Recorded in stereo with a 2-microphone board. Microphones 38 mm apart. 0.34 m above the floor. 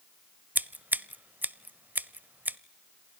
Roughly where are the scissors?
Right.